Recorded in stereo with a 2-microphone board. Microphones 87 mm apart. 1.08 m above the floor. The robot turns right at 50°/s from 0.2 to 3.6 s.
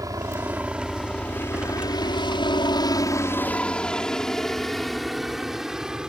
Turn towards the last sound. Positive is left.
turn(degrees=-10)  # may be behind; listen again after turning